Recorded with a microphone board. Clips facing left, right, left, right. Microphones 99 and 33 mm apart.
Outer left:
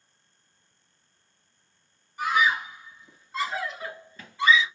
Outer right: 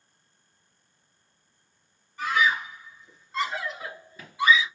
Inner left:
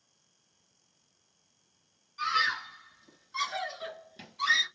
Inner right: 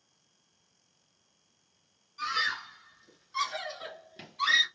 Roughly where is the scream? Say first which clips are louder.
Outer left 1 dB, inner left 2 dB; centre.